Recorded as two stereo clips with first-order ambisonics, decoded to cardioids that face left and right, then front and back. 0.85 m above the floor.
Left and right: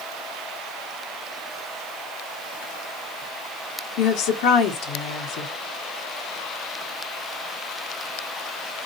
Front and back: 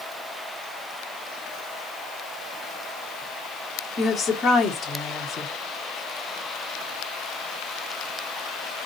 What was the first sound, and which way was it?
A woman speaking, 70° left.